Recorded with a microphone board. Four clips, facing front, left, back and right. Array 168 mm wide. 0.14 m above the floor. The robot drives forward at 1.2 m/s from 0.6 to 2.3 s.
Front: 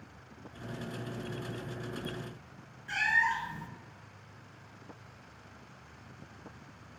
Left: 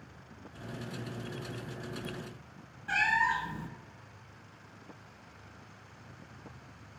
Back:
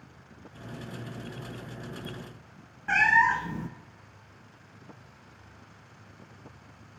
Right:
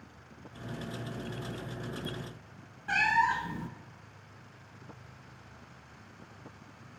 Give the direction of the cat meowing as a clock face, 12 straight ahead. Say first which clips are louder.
Right 2 dB, back 8 dB; 6 o'clock.